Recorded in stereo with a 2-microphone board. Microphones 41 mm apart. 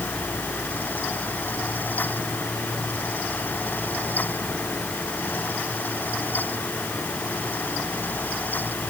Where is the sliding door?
No sliding door in this recording.